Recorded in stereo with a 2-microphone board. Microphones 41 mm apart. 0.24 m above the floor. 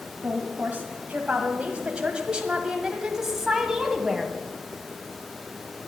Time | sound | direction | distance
0.2 | a woman speaking | 40° right (ahead or behind) | 1.8 m